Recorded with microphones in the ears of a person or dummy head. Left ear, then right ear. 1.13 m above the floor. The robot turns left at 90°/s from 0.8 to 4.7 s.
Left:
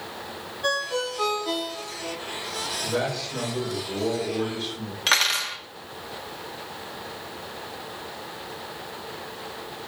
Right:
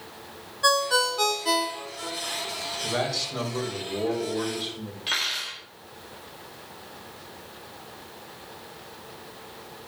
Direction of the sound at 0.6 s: 55° right.